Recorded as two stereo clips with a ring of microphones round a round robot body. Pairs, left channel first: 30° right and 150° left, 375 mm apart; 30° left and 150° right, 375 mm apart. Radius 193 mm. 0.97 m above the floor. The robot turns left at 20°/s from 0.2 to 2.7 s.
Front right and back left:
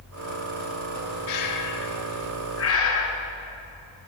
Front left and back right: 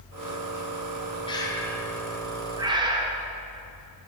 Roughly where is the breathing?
Ahead right.